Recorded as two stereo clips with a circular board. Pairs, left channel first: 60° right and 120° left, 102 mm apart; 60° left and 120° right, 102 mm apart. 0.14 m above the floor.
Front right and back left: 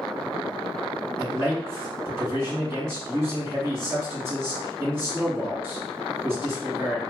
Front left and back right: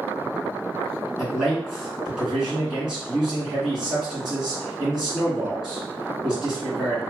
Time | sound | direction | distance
1.2 | a man speaking | 160° left | 2.0 m